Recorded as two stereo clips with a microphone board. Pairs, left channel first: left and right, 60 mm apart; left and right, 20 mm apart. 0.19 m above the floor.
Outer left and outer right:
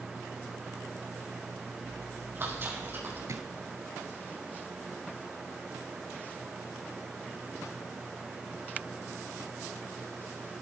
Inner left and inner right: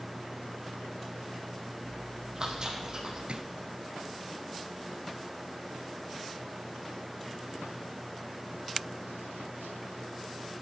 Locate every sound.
1.8 s chewing: 40° right (ahead or behind), 4 m
3.3 s a drawer: 60° right (ahead or behind), 1.3 m